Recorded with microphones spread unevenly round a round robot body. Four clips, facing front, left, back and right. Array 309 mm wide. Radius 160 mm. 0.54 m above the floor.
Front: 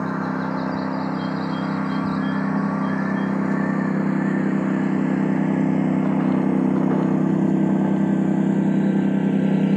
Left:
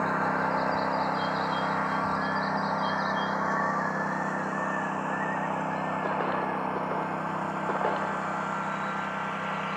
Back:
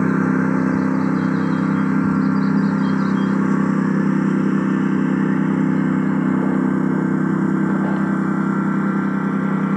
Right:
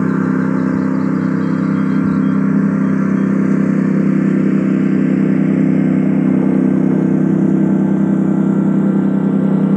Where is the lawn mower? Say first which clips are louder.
Right 12 dB, back 7 dB; 115° right; by 9.8 s 90° right.